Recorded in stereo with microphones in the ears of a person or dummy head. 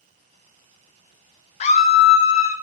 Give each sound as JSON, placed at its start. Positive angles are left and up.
{"t": 1.6, "sound": "a scream", "side_deg": 35, "distance_m": 0.6}